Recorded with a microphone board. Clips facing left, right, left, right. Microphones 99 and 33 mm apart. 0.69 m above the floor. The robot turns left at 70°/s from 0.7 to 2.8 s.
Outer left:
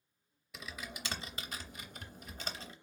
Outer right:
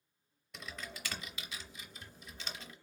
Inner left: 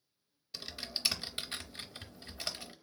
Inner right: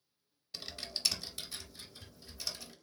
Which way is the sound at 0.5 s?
175° left.